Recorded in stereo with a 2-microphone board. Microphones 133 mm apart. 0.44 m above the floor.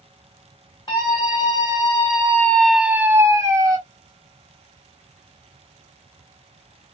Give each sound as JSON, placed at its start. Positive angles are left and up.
{"t": 0.9, "sound": "a scream", "side_deg": 35, "distance_m": 3.0}